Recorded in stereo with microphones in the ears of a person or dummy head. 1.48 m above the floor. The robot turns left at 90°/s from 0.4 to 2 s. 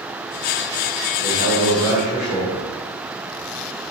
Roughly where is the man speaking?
Right.